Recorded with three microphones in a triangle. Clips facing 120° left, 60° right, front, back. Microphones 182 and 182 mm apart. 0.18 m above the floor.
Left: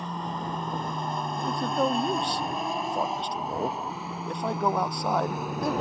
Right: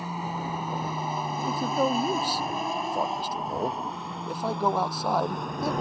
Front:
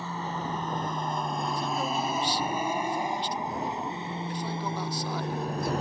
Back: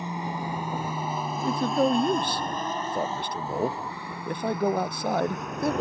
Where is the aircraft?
130° right; by 5.8 s 40° left.